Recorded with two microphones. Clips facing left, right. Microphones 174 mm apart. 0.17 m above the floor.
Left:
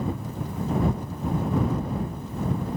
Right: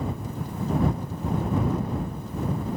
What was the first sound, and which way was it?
Only background noise.